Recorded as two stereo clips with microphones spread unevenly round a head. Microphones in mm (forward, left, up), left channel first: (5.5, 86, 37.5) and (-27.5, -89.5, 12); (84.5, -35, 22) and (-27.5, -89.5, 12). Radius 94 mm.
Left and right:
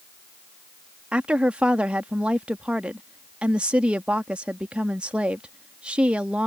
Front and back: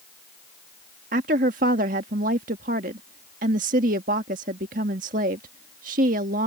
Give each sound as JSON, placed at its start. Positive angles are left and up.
{"t": 1.1, "sound": "a woman speaking", "azimuth_deg": 175}